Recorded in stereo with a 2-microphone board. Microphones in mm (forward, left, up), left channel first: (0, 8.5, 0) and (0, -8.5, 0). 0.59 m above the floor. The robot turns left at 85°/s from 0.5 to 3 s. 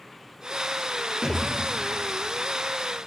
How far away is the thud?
About 4 m.